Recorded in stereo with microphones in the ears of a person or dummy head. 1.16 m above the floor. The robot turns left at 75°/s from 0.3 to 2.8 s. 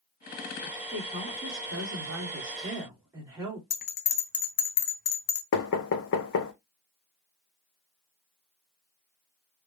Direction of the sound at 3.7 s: 40° left (ahead or behind).